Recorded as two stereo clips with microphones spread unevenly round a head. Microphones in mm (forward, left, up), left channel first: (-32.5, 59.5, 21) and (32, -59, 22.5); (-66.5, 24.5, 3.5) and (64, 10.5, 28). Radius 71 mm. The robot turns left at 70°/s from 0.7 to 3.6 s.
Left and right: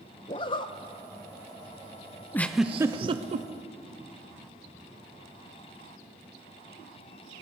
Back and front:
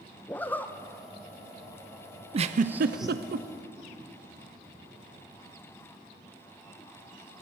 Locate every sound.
0.3 s a zipper: 90° left, 0.5 m; by 3.2 s 90° right, 0.5 m
2.3 s a giggle: 45° left, 0.6 m; by 3.5 s 35° right, 0.6 m